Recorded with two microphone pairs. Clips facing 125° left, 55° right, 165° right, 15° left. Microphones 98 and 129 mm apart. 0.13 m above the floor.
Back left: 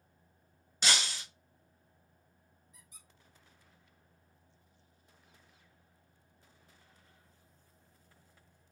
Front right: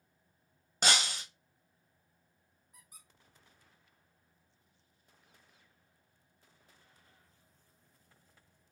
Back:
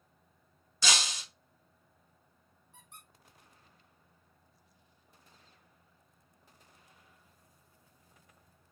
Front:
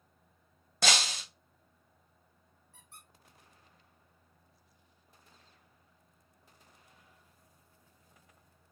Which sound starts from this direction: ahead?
Breaking glass, at 0.8 s.